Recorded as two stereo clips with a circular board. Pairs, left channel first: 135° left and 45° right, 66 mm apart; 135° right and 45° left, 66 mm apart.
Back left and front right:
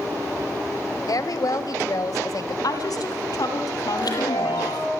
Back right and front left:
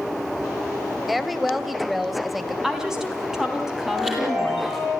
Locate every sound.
1.1 s a woman speaking: 135° left, 2.0 m
2.6 s a woman speaking: 125° left, 4.5 m
4.0 s a chime: 125° left, 9 m